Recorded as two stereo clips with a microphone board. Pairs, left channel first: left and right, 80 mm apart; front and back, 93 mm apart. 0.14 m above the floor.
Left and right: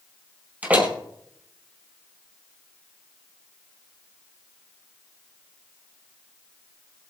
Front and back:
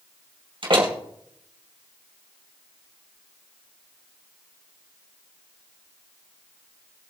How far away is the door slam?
About 2.5 m.